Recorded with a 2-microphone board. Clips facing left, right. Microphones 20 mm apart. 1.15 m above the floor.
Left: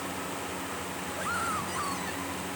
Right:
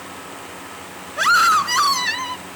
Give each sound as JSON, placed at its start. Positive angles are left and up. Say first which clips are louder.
{"t": 1.2, "sound": "a scream", "louder": "right 18 dB", "side_deg": -85}